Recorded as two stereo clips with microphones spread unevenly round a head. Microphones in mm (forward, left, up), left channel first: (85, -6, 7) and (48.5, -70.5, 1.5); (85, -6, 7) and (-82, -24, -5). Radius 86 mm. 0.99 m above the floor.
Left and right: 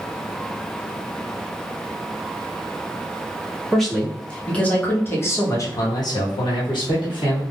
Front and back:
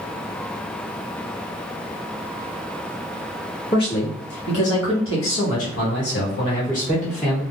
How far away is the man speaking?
About 1.7 m.